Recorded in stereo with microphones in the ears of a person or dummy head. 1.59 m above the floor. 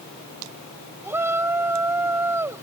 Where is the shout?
10° right (ahead or behind).